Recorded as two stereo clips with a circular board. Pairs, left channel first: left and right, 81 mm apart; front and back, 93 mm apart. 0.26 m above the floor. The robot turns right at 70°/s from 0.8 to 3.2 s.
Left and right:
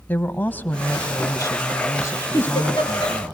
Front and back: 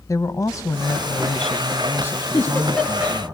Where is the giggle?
45° left, 5.5 m; by 3.2 s 105° left, 5.5 m.